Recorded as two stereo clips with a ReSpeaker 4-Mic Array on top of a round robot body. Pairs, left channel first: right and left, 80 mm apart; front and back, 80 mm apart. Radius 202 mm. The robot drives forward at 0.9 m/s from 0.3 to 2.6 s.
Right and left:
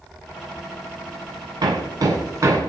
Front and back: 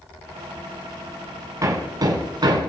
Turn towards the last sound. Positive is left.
turn(degrees=145)